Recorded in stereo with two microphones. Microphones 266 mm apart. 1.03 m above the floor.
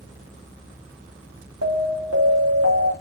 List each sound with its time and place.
1.6 s an alarm: 75° right (ahead or behind), 3 m